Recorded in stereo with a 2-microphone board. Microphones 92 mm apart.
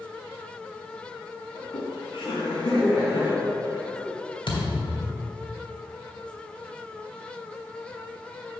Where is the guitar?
No guitar in this recording.